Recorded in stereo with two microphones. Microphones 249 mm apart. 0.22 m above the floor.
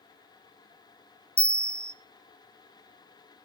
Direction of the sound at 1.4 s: 10° right (ahead or behind).